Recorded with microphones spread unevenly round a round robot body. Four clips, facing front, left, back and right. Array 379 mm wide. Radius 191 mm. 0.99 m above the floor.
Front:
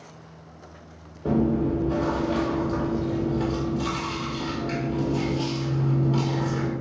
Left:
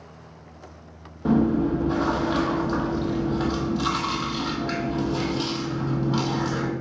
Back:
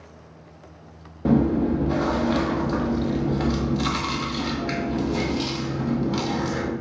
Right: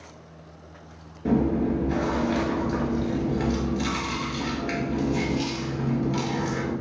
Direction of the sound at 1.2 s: 170° left.